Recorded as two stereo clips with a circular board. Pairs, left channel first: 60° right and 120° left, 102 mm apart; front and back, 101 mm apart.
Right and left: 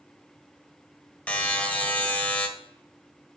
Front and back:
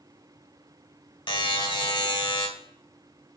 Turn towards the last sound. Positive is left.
turn(degrees=15)